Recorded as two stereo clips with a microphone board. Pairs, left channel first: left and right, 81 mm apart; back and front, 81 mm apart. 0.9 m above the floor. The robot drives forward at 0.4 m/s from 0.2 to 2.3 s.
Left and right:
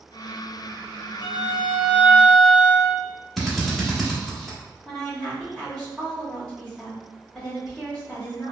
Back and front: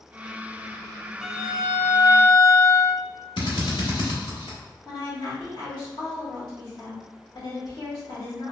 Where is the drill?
Straight behind, 1.0 m.